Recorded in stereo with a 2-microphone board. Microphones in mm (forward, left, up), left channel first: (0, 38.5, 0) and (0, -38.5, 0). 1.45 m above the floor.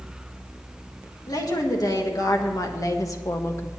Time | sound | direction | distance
1.3 | a woman speaking | 60° left (ahead or behind) | 2 m